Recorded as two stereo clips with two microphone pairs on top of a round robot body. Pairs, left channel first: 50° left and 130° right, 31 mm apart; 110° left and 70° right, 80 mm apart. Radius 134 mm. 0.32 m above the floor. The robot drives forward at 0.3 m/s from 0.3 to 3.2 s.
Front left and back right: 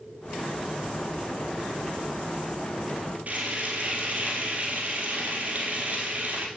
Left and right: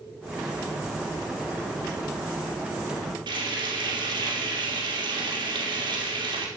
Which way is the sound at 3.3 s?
85° right.